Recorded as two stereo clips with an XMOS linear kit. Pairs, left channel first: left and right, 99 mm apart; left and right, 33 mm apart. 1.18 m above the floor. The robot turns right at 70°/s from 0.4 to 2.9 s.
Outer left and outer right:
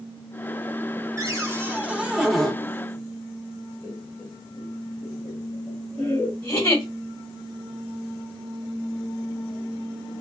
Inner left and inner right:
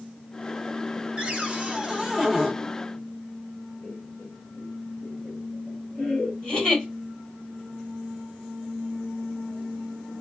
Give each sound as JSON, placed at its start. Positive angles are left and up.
{"t": 1.2, "sound": "a cupboard door", "azimuth_deg": -85, "distance_m": 0.9}
{"t": 3.8, "sound": "laughter", "side_deg": 20, "distance_m": 0.7}
{"t": 6.4, "sound": "a giggle", "side_deg": 30, "distance_m": 1.6}